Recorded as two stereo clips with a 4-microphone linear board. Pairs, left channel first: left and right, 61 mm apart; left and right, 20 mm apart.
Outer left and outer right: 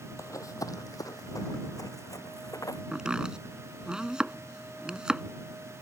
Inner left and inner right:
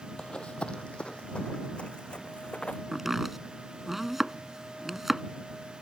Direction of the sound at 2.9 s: 10° right (ahead or behind).